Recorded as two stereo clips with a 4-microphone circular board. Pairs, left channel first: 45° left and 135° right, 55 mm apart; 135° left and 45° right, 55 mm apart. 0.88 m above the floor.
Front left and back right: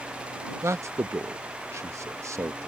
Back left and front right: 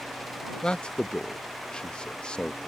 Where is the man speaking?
150° right.